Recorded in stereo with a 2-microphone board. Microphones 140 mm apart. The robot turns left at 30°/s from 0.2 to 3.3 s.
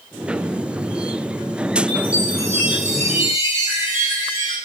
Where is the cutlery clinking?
I don't hear cutlery clinking.